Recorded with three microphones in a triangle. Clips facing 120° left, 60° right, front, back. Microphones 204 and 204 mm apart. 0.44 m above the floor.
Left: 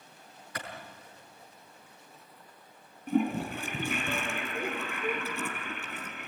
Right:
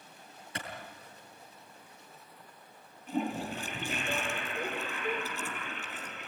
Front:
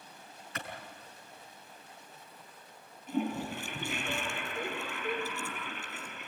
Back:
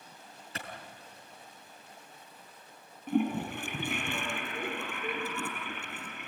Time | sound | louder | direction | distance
0.6 | a clap | left 1 dB, front 1 dB | 120° right | 5.5 m
3.1 | a toilet flushing | left 5 dB, back 4 dB | 155° left | 4.5 m